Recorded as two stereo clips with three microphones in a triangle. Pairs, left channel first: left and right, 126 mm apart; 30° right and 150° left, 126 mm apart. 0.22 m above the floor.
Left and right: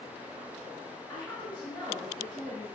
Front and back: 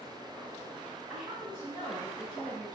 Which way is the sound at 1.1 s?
80° left.